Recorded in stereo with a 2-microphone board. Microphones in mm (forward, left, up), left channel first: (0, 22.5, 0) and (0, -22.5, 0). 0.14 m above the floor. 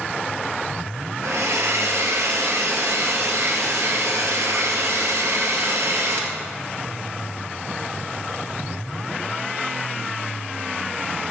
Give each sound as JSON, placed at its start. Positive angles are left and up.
{"t": 1.2, "sound": "a hair dryer", "side_deg": -65, "distance_m": 2.0}